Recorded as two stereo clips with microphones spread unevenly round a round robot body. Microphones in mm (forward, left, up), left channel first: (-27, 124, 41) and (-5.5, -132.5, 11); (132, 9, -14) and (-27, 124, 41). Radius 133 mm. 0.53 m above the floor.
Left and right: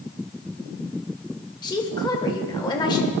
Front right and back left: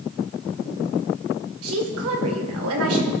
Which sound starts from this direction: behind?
A woman speaking, at 1.6 s.